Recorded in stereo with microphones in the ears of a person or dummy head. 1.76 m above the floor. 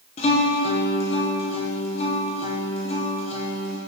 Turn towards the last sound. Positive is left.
turn(degrees=30)  # may be behind; listen again after turning